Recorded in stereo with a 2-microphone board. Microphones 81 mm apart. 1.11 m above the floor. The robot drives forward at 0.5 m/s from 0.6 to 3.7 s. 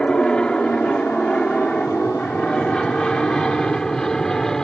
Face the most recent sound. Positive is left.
turn(degrees=5)  # may be behind; listen again after turning